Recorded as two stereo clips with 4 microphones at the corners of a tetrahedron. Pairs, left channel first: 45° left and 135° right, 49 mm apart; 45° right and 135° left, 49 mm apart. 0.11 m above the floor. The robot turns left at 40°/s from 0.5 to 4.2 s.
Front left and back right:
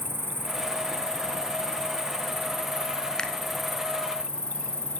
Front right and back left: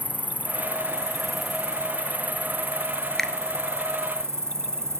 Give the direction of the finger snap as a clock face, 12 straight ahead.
12 o'clock.